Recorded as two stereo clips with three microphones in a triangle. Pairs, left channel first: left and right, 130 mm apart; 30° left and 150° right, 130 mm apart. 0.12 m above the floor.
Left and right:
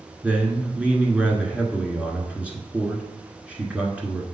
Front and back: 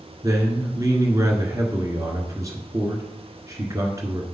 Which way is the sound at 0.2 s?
155° right.